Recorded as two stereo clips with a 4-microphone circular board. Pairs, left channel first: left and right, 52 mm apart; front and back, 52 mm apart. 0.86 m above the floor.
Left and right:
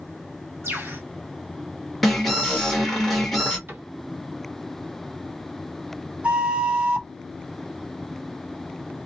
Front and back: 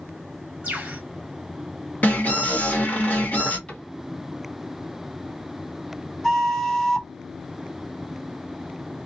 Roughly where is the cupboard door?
Ahead right.